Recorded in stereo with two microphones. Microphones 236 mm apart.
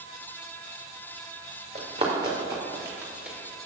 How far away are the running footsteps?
About 2.5 m.